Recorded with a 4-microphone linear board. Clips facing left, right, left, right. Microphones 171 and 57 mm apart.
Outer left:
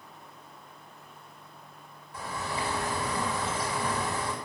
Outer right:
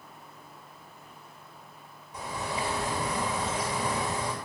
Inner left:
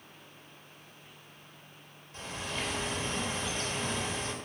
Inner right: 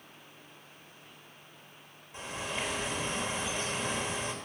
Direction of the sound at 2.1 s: 15° right (ahead or behind).